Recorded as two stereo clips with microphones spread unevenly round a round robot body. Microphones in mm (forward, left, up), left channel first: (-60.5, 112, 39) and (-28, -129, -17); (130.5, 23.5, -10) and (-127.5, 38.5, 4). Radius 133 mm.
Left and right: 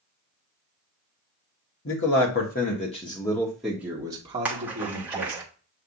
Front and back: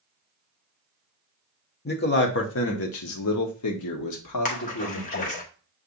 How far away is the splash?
About 0.9 m.